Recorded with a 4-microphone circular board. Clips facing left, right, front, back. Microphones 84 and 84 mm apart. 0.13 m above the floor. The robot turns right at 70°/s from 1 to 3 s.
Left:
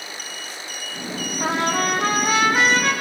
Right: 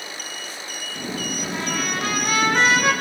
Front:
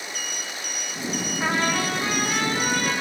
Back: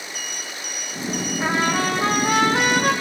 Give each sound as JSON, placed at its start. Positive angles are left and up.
{"t": 1.4, "sound": "a trumpet", "azimuth_deg": 90, "distance_m": 5.0}